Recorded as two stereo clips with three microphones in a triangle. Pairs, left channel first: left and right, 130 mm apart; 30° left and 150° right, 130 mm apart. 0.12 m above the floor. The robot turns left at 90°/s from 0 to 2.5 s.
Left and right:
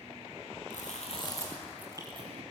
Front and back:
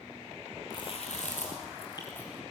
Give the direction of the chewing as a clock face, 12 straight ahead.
9 o'clock.